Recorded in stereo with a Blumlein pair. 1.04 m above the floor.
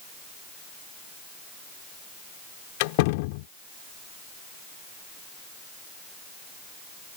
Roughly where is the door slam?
Ahead left.